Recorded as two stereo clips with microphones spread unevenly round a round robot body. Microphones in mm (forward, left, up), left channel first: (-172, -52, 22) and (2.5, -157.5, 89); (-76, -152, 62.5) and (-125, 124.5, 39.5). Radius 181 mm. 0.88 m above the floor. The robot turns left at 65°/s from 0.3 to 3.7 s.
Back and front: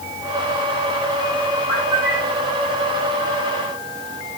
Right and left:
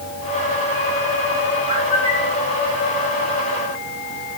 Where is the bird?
25° left, 3.5 m; by 2.4 s 15° right, 3.5 m.